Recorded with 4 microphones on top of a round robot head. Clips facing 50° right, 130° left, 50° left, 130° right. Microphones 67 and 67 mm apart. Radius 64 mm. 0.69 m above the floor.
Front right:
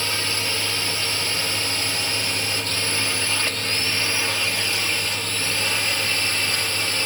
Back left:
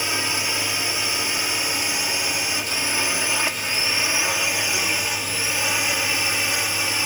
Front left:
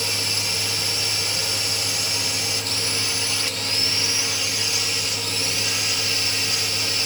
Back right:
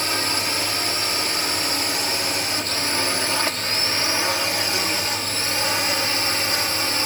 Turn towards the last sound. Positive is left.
turn(degrees=-155)